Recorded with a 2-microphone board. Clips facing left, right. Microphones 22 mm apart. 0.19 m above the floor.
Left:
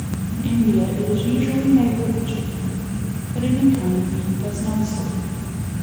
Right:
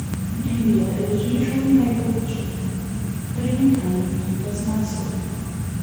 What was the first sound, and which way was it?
A woman speaking, 75° left (ahead or behind).